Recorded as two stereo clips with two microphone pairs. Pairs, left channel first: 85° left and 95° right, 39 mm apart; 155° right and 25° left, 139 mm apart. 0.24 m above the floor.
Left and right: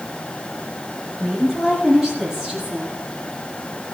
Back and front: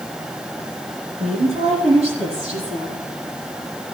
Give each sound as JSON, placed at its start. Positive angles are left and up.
{"t": 1.2, "sound": "a woman speaking", "azimuth_deg": -15, "distance_m": 7.5}